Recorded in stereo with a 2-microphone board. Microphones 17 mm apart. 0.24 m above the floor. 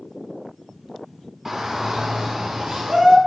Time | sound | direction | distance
1.4 | a shout | 20° right (ahead or behind) | 0.9 m